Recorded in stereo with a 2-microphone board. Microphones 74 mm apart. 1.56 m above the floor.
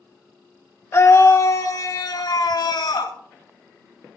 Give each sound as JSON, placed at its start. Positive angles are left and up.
{"t": 0.9, "sound": "a scream", "side_deg": 35, "distance_m": 1.5}